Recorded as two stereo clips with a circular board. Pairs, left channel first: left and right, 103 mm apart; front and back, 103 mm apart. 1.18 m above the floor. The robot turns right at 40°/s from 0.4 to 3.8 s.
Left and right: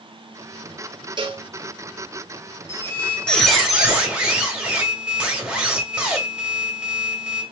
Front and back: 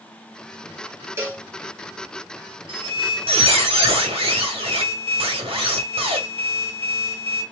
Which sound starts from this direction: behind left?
A squeak, at 2.7 s.